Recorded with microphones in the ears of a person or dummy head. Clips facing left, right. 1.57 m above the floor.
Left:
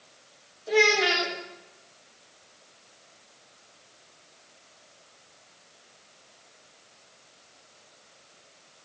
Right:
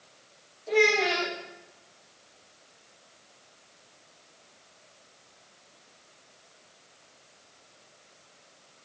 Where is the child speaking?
10° left (ahead or behind), 2 m.